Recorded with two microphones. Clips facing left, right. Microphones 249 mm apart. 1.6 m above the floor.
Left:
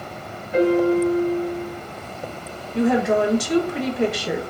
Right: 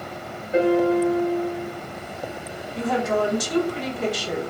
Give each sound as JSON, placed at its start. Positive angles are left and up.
{"t": 0.5, "sound": "a piano", "side_deg": -25, "distance_m": 1.1}
{"t": 2.8, "sound": "a woman speaking", "side_deg": 65, "distance_m": 0.9}